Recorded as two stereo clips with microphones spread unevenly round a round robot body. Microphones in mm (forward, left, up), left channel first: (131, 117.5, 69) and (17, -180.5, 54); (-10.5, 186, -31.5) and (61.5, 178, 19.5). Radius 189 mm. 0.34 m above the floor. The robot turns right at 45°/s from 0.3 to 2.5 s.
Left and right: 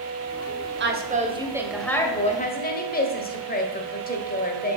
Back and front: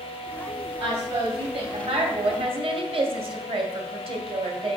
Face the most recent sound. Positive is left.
turn(degrees=10)